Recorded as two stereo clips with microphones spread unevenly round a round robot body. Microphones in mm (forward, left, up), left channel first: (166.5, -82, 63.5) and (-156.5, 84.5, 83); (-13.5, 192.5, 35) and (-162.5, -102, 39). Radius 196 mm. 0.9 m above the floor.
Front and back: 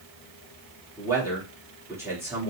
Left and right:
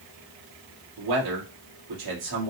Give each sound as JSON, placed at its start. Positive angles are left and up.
{"t": 1.0, "sound": "a man speaking", "azimuth_deg": -125, "distance_m": 1.8}